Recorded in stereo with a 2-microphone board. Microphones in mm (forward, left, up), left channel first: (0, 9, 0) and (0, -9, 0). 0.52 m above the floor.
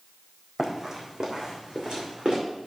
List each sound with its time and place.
0.6 s running footsteps: 30° right (ahead or behind), 1.7 m; by 2.4 s 55° right (ahead or behind), 2.5 m